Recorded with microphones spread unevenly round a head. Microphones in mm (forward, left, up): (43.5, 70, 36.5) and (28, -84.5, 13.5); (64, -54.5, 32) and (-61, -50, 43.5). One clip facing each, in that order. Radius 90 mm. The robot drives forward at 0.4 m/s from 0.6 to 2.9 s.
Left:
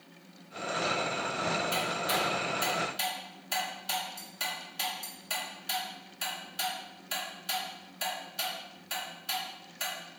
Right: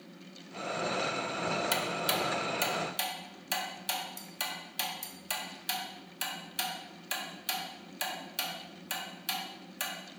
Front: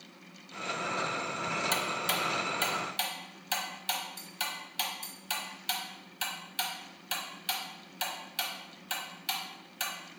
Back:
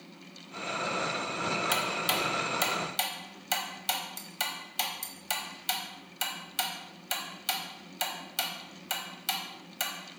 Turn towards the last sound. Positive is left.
turn(degrees=-140)